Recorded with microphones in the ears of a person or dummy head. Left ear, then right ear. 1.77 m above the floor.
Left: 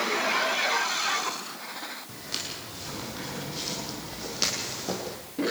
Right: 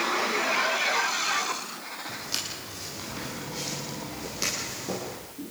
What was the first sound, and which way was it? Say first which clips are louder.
Footsteps: right 4 dB; 5° right (ahead or behind).